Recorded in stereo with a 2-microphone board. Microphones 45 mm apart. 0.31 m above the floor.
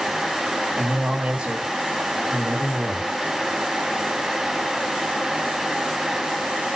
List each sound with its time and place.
0.8 s a man speaking: 25° right (ahead or behind), 1.5 m